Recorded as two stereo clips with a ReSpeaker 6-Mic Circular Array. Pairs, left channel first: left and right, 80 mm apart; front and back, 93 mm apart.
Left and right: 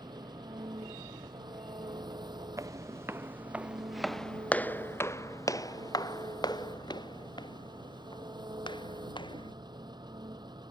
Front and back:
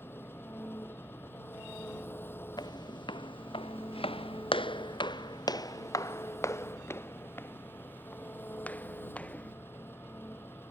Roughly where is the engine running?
Ahead right.